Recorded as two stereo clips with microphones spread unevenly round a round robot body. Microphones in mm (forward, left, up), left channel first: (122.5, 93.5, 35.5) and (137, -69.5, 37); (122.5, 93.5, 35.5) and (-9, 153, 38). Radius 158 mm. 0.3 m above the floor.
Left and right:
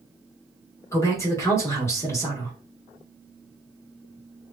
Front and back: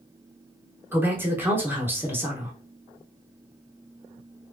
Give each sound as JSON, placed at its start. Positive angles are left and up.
{"t": 0.9, "sound": "a man speaking", "azimuth_deg": 110, "distance_m": 1.3}